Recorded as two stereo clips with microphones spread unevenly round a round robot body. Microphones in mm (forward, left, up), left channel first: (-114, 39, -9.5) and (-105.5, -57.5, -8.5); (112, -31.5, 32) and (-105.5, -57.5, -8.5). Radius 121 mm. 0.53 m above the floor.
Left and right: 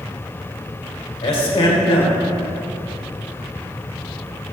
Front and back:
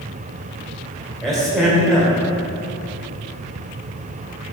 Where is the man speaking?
100° left, 1.5 m.